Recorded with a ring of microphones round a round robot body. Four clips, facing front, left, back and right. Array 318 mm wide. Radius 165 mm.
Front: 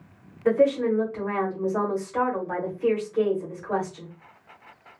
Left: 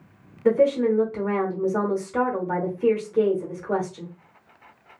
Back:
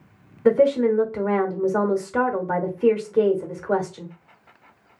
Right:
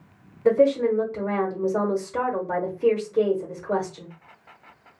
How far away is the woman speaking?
About 1.0 m.